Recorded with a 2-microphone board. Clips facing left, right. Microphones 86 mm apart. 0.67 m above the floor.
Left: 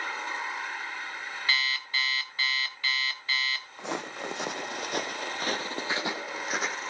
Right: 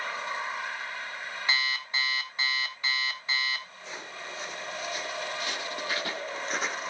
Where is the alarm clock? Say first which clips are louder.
Even; 20° right (ahead or behind), 2.0 m.